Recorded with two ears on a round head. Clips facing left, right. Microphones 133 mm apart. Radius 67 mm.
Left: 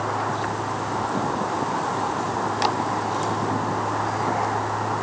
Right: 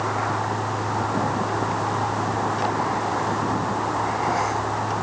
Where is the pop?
I don't hear a pop.